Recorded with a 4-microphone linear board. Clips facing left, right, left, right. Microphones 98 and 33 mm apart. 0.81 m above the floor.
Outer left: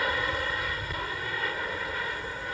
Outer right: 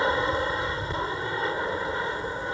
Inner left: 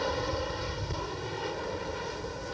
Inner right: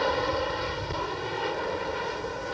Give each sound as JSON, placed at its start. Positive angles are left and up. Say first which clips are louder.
{"t": 0.0, "sound": "an aircraft", "louder": "outer right 5 dB, inner right 5 dB", "side_deg": -25}